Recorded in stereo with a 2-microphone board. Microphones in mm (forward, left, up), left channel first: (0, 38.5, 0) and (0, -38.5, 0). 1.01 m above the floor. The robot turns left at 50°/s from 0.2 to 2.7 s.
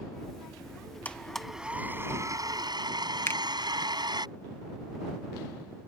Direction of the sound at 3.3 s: 30° left (ahead or behind).